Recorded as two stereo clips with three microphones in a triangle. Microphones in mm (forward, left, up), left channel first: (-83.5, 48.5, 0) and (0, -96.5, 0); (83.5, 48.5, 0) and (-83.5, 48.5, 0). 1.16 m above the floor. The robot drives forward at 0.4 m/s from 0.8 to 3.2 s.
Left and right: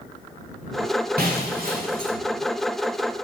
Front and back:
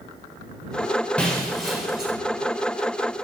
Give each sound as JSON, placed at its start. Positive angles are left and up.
{"t": 1.2, "sound": "breaking glass", "azimuth_deg": -85, "distance_m": 2.0}